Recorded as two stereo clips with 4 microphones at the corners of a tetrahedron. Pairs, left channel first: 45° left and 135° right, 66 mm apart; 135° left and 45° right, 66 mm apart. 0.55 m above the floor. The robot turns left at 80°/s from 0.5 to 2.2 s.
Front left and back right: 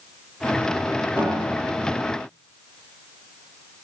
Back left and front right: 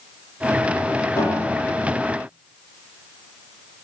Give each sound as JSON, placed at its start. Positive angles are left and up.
{"t": 1.2, "sound": "a piano", "azimuth_deg": 135, "distance_m": 6.5}